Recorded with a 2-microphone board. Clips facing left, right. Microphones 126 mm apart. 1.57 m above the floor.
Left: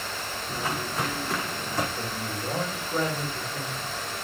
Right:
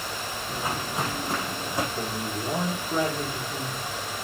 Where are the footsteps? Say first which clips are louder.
Even; 15° right (ahead or behind), 6 m; by 1.9 s 10° right (ahead or behind), 5 m.